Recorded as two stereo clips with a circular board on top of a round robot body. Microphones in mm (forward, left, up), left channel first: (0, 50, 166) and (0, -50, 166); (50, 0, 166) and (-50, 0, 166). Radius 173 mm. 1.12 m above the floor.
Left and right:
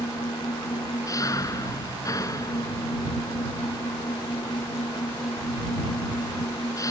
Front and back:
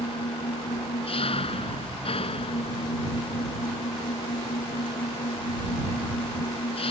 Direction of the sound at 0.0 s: 30° left.